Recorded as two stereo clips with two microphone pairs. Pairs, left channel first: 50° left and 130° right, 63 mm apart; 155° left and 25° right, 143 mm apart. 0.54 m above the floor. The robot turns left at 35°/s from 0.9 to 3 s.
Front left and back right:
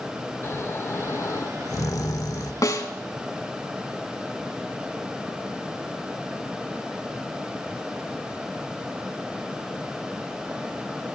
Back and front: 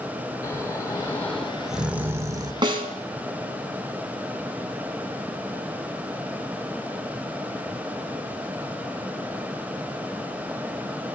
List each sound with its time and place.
0.4 s snoring: 90° left, 0.8 m; by 2.5 s 35° left, 0.8 m
2.6 s a snare drum: 35° left, 1.6 m; by 2.9 s 25° left, 1.6 m